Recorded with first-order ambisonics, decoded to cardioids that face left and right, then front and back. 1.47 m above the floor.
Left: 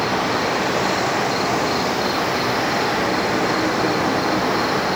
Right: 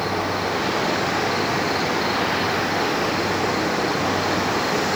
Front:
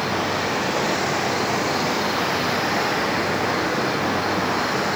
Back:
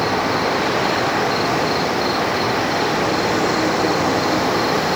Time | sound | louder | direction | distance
0.0 | an insect | left 3 dB, back 4 dB | 155° left | 1.1 m